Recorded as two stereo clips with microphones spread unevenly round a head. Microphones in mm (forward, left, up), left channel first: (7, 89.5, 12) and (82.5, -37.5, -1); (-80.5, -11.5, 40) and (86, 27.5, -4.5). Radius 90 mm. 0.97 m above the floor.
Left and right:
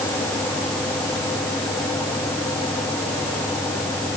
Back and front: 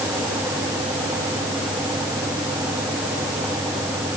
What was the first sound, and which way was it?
Only background noise.